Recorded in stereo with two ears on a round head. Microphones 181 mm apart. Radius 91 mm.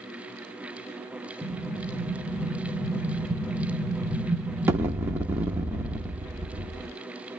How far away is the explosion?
About 0.6 m.